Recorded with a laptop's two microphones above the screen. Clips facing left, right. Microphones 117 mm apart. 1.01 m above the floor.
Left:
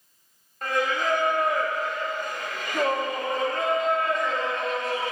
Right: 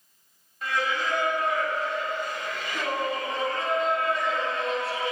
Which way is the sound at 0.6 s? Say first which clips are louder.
Left 3 dB; 50° left (ahead or behind).